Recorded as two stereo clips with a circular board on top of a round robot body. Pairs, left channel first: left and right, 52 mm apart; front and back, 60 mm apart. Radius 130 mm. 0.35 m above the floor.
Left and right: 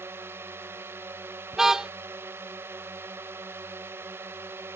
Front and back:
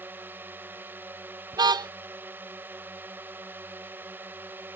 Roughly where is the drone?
Behind right.